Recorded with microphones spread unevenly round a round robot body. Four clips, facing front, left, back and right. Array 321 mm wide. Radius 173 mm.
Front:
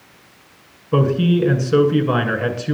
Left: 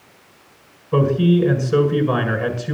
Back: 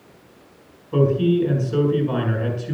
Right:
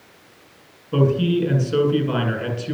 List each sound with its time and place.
0.9 s a man speaking: 15° left, 7 m